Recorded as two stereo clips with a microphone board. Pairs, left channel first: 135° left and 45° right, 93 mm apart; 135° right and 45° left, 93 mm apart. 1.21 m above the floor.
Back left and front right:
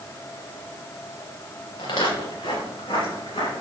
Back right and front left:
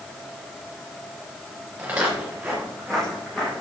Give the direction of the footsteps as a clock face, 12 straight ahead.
8 o'clock.